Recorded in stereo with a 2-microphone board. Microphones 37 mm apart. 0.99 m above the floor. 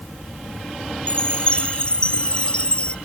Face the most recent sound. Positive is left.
turn(degrees=30)  # may be behind; listen again after turning